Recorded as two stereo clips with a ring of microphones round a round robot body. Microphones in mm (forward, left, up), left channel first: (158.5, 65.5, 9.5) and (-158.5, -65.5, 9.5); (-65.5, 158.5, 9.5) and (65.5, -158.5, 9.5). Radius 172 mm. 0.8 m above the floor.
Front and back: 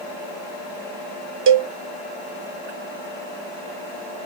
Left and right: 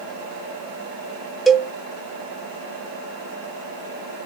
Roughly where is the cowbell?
Behind.